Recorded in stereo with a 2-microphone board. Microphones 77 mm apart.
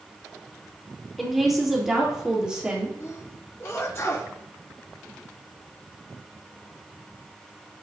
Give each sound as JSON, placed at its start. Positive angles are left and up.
{"t": 1.2, "sound": "a woman speaking", "side_deg": 0, "distance_m": 4.0}
{"t": 3.0, "sound": "a sneeze", "side_deg": 35, "distance_m": 3.0}